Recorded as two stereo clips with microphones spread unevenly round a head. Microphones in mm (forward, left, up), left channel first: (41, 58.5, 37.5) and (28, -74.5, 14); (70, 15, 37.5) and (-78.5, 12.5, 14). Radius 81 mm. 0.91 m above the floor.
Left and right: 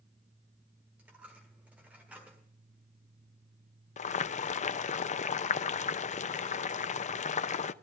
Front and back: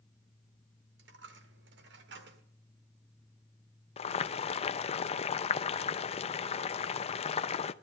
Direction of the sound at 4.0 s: 50° left.